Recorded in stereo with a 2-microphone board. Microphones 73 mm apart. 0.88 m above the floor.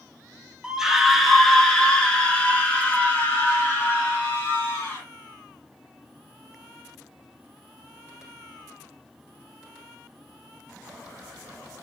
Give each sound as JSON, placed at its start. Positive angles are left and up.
{"t": 0.6, "sound": "a scream", "side_deg": -10, "distance_m": 1.1}